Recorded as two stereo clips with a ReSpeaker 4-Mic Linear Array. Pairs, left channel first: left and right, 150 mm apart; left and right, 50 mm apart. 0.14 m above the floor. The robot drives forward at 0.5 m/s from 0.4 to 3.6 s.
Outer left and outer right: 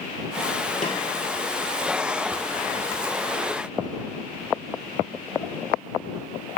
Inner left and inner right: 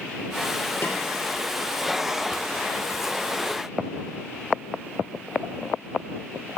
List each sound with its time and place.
0.8 s a snare drum: 60° left (ahead or behind), 1.5 m; by 1.0 s 55° left (ahead or behind), 1.5 m